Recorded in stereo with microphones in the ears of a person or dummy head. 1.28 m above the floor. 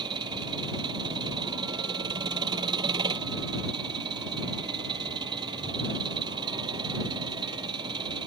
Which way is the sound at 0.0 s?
30° right (ahead or behind).